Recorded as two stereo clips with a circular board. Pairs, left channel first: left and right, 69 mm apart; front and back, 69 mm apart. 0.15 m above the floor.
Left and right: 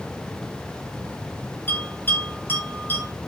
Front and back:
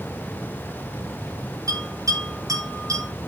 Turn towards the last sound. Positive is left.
turn(degrees=150)